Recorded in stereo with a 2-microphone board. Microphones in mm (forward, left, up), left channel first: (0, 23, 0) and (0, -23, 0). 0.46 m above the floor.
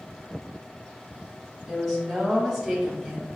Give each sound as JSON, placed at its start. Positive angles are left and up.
{"t": 1.7, "sound": "a woman speaking", "side_deg": 0, "distance_m": 1.3}